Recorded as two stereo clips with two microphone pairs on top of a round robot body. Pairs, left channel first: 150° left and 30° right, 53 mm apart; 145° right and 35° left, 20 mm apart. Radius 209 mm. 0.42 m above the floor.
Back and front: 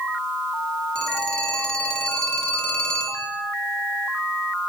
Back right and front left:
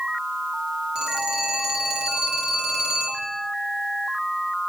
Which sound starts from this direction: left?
A phone ringing, at 0.9 s.